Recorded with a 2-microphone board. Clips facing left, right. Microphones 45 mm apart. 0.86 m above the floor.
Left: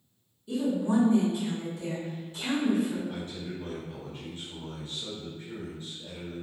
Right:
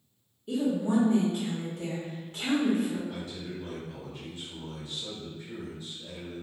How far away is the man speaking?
About 1.4 m.